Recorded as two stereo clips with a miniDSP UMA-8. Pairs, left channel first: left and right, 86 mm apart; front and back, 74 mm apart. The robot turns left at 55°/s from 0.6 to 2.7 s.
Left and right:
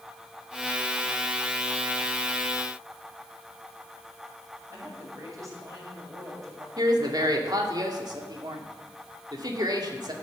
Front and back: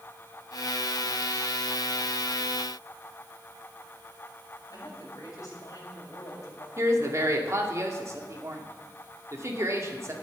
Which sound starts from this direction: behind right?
A woman speaking, at 6.8 s.